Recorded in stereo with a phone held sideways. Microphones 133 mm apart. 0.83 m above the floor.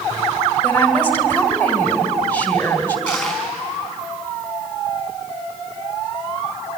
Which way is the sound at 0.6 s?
15° left (ahead or behind).